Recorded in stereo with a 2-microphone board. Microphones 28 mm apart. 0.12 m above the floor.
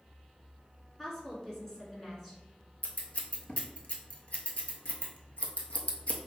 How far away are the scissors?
About 0.6 m.